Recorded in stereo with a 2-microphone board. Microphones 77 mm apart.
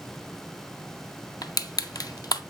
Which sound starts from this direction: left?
Crushing, at 1.4 s.